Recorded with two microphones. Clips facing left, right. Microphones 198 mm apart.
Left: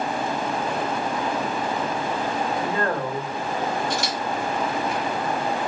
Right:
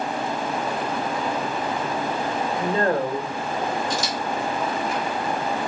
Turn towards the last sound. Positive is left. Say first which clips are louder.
# even
turn(degrees=80)